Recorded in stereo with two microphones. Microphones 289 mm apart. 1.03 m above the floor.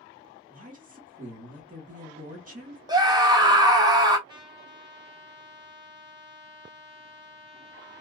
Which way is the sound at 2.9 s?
15° right (ahead or behind).